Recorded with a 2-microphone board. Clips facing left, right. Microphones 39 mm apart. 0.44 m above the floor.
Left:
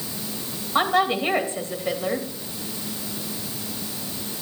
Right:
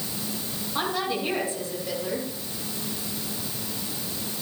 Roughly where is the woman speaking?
Left.